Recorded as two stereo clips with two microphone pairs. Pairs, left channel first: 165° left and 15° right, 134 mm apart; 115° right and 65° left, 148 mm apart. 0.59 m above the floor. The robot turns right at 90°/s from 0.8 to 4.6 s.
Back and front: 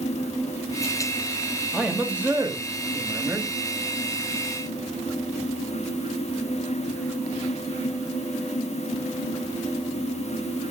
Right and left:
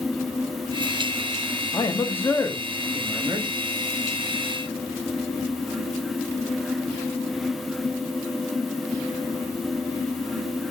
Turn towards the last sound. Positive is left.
turn(degrees=155)